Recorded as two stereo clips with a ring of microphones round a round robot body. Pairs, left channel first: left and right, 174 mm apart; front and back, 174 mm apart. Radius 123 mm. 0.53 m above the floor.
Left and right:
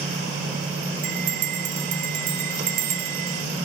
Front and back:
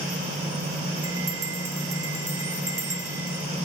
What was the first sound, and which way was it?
A bell, 105° right.